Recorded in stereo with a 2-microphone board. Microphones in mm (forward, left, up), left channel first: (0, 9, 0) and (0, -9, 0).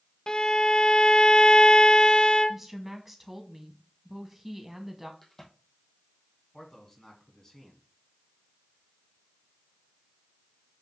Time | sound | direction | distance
0.3 | a violin | 45° left (ahead or behind) | 0.5 m
2.5 | a woman speaking | 15° right (ahead or behind) | 1.5 m
5.2 | a crack | 30° left (ahead or behind) | 3 m
6.5 | a man speaking | 30° left (ahead or behind) | 2.5 m